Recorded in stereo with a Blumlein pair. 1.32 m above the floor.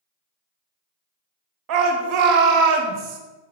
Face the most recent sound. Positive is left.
turn(degrees=-40)